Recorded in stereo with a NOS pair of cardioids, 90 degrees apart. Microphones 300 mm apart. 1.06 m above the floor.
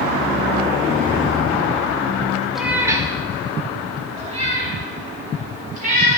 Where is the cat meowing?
Straight ahead, 1.1 m; by 6.2 s 30° right, 5.5 m.